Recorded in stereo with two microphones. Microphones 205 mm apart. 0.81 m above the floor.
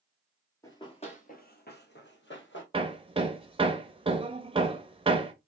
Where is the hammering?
25° right (ahead or behind), 0.6 m.